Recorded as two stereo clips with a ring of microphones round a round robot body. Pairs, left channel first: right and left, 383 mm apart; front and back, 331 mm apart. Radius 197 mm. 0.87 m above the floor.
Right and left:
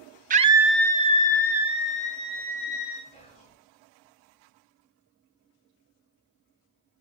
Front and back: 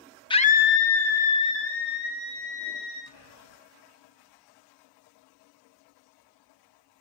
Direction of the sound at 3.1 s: 20° right.